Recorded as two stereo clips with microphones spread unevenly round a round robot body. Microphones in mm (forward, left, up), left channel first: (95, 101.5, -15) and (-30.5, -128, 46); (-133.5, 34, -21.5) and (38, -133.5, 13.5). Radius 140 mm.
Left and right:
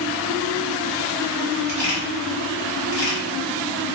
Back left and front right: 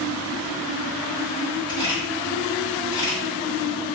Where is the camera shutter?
65° left, 1.7 m.